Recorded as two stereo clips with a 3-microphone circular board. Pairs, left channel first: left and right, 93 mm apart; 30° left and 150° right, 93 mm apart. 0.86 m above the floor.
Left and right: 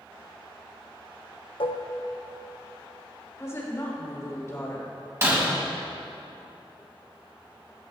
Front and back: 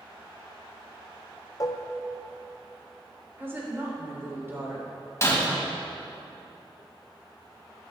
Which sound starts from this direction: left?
Dishes clattering, at 1.6 s.